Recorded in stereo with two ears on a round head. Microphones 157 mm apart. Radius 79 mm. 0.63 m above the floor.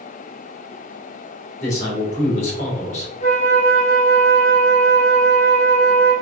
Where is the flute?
40° left (ahead or behind), 2 m.